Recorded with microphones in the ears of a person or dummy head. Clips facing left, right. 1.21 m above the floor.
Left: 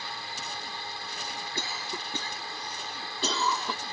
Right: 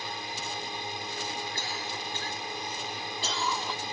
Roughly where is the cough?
Left.